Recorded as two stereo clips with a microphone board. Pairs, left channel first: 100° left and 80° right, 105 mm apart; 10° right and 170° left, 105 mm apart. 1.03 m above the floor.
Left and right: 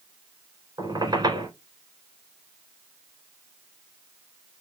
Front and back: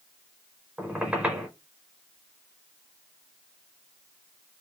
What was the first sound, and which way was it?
A squeak, 115° right.